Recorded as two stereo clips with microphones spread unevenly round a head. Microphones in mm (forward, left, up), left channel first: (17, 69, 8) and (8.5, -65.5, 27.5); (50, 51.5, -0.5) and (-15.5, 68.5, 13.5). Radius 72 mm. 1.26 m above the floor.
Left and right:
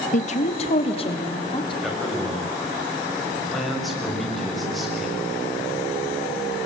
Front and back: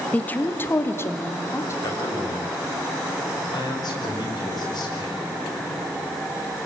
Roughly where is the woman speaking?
Ahead left.